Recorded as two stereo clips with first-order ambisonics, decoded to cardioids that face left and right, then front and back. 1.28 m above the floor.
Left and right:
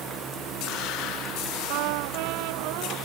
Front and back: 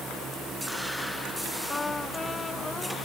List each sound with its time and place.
1.7 s a trumpet: 80° right